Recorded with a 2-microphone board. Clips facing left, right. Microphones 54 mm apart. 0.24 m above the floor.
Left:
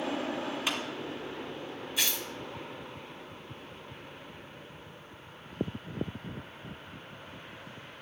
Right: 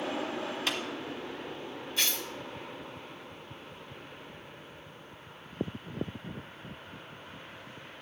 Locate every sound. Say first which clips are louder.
0.7 s a clap: even; 15° left (ahead or behind), 1.8 m
2.0 s tearing paper: even; 10° left (ahead or behind), 1.3 m